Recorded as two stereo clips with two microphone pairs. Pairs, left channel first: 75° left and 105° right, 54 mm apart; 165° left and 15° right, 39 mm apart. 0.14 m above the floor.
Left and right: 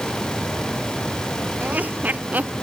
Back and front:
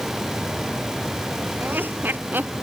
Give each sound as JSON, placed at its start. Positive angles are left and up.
{"t": 1.6, "sound": "laughter", "azimuth_deg": -45}